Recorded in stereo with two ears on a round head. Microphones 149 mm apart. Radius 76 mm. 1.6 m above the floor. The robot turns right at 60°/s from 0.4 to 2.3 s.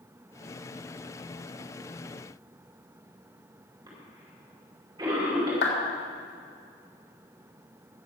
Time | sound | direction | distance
3.9 | a cough | 25° right (ahead or behind) | 5 m
5.6 | a clap | 80° left | 3.5 m